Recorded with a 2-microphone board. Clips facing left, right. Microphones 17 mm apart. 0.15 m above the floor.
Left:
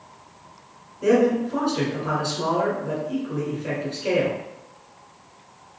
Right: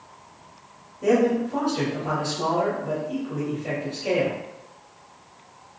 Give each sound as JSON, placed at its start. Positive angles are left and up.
{"t": 1.0, "sound": "a man speaking", "side_deg": 20, "distance_m": 1.5}